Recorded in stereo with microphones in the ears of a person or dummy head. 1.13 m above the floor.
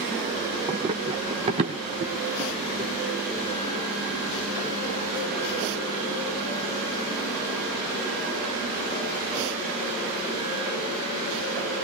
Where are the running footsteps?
25° right (ahead or behind), 1.8 m; by 2.9 s 35° right (ahead or behind), 3.5 m.